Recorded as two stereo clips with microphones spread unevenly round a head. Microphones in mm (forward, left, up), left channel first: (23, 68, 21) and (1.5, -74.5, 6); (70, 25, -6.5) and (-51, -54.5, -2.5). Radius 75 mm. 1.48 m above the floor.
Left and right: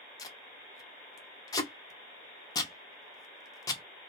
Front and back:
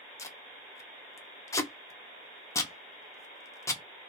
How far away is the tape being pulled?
About 0.6 m.